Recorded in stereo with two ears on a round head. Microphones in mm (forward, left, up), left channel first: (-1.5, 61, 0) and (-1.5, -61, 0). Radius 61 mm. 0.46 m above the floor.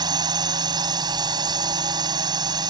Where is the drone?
30° right (ahead or behind).